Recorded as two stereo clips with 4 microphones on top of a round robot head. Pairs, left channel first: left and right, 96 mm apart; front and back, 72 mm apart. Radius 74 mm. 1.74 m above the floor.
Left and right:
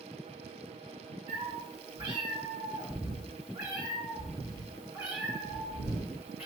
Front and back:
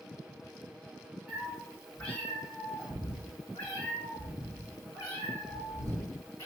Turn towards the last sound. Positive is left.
turn(degrees=-20)